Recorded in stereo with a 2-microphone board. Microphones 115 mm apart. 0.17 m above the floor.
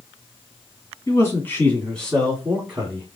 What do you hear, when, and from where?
1.1 s a man speaking: 25° left (ahead or behind), 1.7 m; by 3.2 s 15° right (ahead or behind), 1.5 m